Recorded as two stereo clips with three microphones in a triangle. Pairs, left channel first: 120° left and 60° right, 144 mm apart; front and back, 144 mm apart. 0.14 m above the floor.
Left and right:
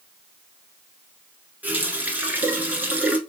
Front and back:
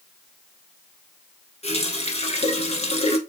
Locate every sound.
1.6 s a running tap: 15° left, 1.1 m